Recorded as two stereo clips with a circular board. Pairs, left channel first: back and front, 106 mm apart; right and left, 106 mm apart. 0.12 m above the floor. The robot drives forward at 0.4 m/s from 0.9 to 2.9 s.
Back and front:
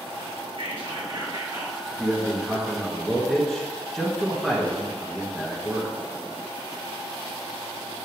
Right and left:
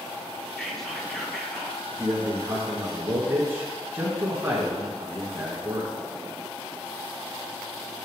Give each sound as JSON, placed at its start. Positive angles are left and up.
{"t": 0.6, "sound": "whispering", "azimuth_deg": 0, "distance_m": 2.5}
{"t": 1.9, "sound": "a man speaking", "azimuth_deg": 55, "distance_m": 1.5}